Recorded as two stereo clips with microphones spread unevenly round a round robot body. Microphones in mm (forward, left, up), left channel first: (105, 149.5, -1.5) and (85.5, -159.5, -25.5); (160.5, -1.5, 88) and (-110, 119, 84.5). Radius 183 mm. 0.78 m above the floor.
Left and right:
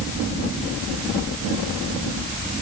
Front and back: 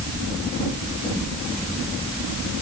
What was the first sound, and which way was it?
Only background noise.